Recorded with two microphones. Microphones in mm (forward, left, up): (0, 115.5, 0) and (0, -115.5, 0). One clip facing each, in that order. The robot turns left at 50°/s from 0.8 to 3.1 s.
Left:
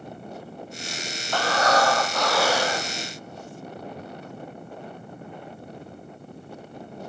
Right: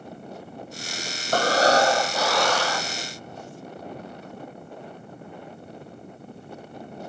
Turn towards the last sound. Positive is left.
turn(degrees=140)